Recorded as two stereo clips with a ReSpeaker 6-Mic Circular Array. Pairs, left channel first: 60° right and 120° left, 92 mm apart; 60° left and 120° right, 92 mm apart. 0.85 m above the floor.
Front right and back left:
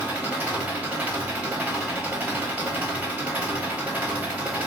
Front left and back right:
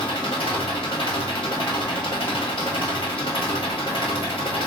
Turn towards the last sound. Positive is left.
turn(degrees=45)